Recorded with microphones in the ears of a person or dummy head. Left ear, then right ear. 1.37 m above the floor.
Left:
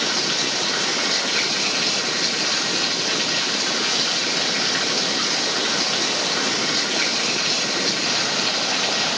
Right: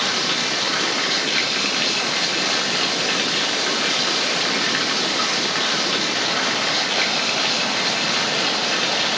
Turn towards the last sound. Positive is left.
turn(degrees=-20)  # may be behind; listen again after turning